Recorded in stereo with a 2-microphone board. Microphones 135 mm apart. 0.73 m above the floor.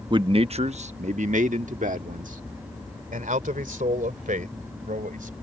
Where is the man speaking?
35° right (ahead or behind); by 5.3 s 80° right.